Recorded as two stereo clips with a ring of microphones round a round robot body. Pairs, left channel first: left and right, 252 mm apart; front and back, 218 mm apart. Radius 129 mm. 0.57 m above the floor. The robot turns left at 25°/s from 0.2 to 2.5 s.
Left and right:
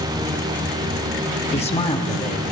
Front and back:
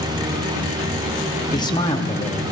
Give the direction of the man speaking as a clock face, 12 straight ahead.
10 o'clock.